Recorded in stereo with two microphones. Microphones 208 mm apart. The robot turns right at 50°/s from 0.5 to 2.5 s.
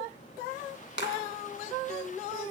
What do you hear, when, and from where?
1.0 s a clap: 60° left (ahead or behind), 2.5 m; by 1.1 s 50° left (ahead or behind), 2.5 m